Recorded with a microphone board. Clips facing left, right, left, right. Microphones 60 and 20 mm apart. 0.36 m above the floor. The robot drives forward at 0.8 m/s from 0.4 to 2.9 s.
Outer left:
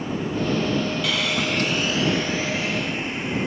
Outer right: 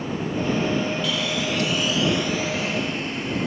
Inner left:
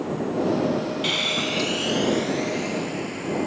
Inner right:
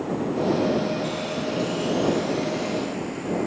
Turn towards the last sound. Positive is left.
turn(degrees=20)  # may be behind; listen again after turning